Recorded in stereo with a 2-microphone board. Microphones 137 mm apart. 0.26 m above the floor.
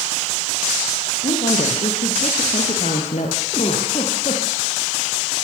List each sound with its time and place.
1.2 s a woman speaking: 70° left (ahead or behind), 8 m; by 3.4 s 60° left (ahead or behind), 7 m
3.5 s a giggle: 50° left (ahead or behind), 7.5 m